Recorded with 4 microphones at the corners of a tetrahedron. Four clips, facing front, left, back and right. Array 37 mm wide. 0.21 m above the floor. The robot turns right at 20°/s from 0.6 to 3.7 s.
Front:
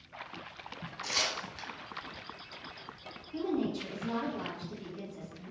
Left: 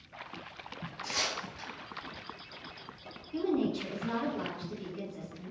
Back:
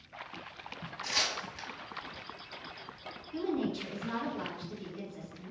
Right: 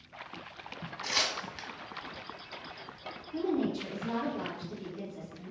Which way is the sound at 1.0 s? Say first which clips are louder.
Right 3 dB, even; 95° right.